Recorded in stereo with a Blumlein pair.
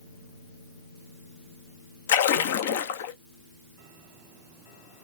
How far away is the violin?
No violin in this recording.